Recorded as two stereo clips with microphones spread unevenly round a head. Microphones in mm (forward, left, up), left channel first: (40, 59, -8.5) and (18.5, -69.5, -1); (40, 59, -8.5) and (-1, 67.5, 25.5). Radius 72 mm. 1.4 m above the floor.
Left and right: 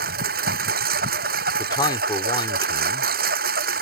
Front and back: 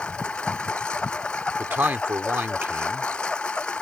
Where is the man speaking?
145° left.